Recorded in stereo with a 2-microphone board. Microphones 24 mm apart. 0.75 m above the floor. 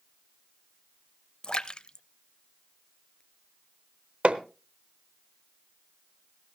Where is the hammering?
60° right (ahead or behind), 0.9 m.